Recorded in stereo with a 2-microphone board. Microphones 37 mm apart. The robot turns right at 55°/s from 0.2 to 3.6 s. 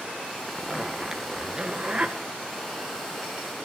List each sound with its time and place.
0.5 s a zipper: 155° left, 1.5 m; by 2.2 s 110° right, 1.5 m